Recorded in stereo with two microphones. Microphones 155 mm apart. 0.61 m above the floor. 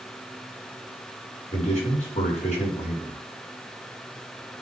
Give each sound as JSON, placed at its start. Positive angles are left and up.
{"t": 1.5, "sound": "a man speaking", "side_deg": 45, "distance_m": 6.0}